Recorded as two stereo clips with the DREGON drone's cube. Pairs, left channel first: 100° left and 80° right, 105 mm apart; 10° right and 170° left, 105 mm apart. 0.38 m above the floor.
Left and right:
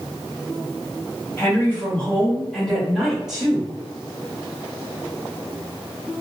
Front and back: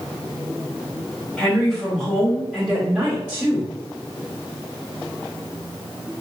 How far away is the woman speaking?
About 1.3 m.